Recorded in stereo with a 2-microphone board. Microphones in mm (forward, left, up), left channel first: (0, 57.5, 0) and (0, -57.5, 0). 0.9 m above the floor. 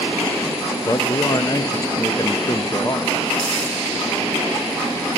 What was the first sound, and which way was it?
A man speaking, 35° left (ahead or behind).